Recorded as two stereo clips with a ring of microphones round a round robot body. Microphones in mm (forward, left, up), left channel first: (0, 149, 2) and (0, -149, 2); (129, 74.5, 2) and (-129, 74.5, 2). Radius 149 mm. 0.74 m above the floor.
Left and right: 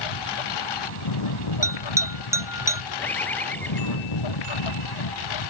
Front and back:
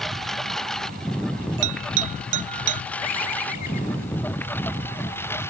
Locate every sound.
0.0 s a lawn mower: 90° left; by 5.5 s 80° left
1.6 s a bell: 170° right
3.0 s a bird: 5° left